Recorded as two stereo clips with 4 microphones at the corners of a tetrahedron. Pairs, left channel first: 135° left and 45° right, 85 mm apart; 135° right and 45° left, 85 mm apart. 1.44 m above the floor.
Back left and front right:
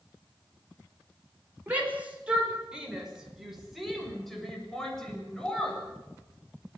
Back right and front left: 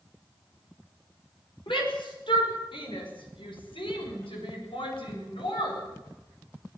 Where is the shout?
115° right, 5.5 m; by 5.8 s 145° right, 9 m.